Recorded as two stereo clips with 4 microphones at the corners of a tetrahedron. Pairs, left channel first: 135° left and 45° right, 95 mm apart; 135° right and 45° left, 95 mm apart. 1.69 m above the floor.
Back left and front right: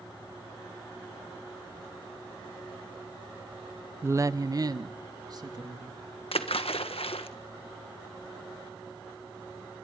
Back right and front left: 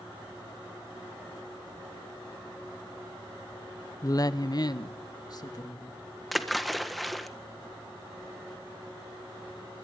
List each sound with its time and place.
4.0 s a woman speaking: 100° right, 0.5 m; by 6.0 s 90° right, 3 m
6.3 s a splash: 135° left, 1.6 m